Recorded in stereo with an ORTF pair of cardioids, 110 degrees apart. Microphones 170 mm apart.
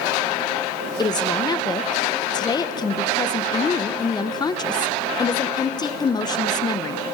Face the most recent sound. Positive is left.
turn(degrees=25)